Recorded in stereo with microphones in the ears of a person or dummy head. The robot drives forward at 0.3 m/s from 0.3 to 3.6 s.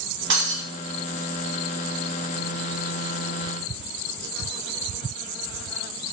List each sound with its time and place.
0.3 s breaking glass: 60° right (ahead or behind), 1.8 m